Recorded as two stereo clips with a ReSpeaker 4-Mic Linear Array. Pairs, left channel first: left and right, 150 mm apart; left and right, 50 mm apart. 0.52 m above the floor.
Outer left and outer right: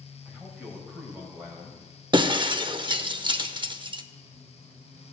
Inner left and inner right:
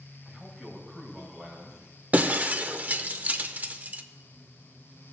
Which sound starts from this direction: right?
Breaking glass, at 2.1 s.